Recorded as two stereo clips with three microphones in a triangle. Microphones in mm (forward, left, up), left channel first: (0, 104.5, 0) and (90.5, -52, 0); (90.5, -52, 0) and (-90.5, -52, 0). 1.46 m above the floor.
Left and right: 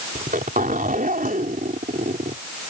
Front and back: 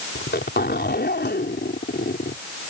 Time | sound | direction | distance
0.1 | a zipper | 20° right | ?